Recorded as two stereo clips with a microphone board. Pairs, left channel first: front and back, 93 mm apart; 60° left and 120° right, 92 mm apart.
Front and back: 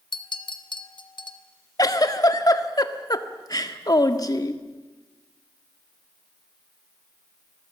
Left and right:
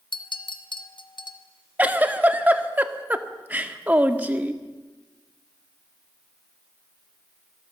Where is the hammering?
I don't hear hammering.